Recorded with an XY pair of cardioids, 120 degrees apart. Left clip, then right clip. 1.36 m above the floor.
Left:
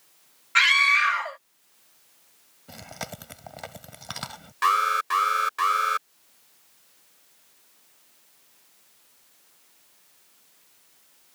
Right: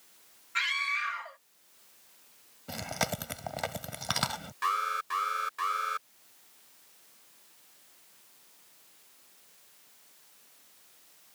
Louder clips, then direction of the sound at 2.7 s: Right 5 dB; 25° right.